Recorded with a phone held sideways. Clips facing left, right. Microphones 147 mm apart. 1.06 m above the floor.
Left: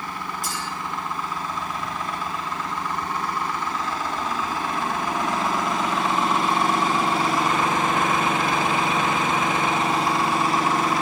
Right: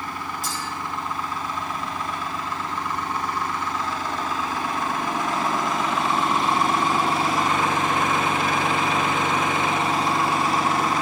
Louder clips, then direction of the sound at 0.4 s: Even; centre (ahead or behind).